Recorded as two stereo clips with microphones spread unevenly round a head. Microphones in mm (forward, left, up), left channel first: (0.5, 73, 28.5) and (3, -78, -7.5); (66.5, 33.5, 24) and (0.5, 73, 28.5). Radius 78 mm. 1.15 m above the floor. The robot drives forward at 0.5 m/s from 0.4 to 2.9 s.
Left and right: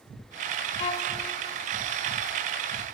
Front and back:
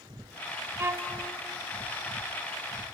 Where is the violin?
110° left, 1.2 m; by 1.2 s 120° left, 1.3 m.